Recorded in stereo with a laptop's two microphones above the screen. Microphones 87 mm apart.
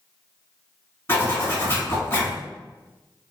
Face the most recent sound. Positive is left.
turn(degrees=30)  # may be behind; listen again after turning